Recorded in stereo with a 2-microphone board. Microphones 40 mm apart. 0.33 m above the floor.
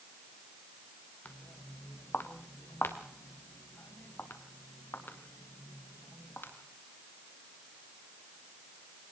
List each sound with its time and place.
1.2 s footsteps: 45° left (ahead or behind), 2.5 m; by 6.5 s 65° left (ahead or behind), 4.5 m